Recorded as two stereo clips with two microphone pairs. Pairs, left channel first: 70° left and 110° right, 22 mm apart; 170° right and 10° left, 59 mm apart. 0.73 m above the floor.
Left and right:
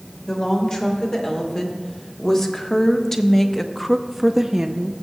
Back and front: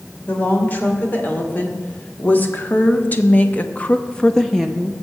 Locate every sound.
0.3 s a woman speaking: 130° left, 2.5 m; by 5.0 s 75° right, 0.7 m